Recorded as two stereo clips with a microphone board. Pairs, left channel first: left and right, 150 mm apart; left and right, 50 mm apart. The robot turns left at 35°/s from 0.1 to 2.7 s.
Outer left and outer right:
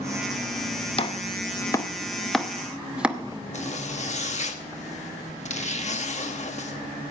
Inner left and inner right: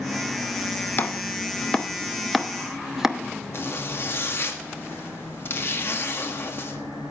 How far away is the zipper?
About 1.2 m.